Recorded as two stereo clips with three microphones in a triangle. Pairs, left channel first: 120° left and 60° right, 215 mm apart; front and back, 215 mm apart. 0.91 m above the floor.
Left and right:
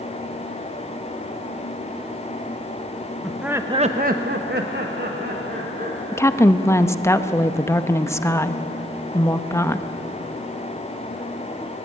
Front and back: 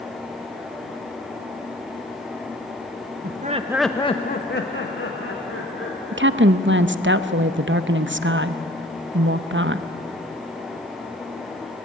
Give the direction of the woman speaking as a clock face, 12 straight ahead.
6 o'clock.